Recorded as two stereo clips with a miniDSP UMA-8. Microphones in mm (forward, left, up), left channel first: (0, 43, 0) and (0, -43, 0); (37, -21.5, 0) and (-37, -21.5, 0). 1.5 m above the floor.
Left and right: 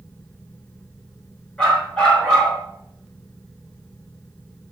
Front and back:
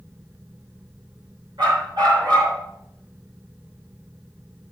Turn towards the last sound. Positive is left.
turn(degrees=165)